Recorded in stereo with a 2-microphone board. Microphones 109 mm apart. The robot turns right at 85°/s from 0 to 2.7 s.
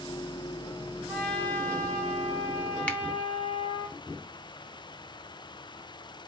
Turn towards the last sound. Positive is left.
turn(degrees=10)  # may be behind; listen again after turning